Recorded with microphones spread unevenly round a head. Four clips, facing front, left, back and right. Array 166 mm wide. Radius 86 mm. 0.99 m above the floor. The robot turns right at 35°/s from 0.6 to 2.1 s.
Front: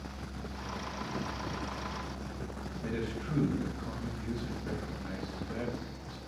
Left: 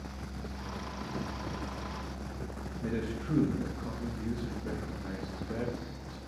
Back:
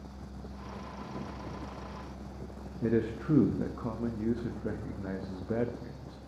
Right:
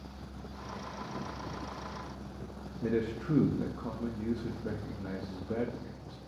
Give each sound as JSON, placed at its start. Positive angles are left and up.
{"t": 2.8, "sound": "a man speaking", "azimuth_deg": -165, "distance_m": 1.0}